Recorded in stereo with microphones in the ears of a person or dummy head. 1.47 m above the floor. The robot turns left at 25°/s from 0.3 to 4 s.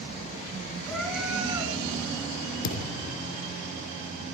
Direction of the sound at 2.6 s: 65° left (ahead or behind).